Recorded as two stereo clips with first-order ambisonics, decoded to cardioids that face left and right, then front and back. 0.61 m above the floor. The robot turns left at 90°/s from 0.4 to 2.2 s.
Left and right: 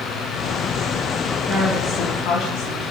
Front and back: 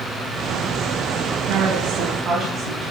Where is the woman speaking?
Straight behind, 5 m; by 2.9 s 115° left, 5 m.